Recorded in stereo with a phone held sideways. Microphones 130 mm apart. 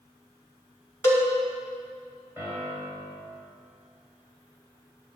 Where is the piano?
20° right (ahead or behind), 3 m.